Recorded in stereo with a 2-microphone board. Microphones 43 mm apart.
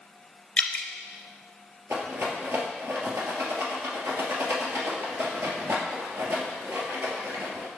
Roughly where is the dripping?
Left.